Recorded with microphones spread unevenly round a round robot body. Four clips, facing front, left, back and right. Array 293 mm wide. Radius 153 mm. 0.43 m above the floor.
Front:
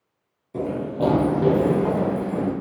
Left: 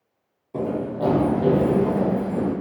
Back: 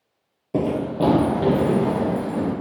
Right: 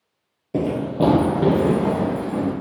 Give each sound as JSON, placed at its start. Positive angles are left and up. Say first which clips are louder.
{"t": 0.5, "sound": "running footsteps", "louder": "right 4 dB, back 3 dB", "azimuth_deg": -130, "distance_m": 0.6}